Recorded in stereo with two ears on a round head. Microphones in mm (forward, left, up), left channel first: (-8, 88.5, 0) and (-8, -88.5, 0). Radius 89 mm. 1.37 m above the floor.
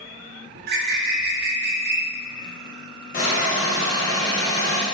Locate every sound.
0.6 s a bird: 50° right (ahead or behind), 0.5 m
3.1 s a hiss: 40° left (ahead or behind), 1.3 m